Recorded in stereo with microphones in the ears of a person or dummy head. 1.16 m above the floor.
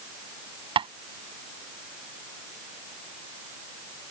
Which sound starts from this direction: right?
Tapping, at 0.8 s.